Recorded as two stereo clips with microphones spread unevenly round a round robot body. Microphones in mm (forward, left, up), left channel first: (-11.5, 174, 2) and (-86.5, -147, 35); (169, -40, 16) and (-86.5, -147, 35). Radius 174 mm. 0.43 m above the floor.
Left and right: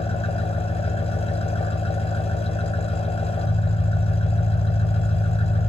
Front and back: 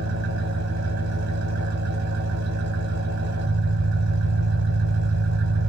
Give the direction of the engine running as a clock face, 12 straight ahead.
7 o'clock.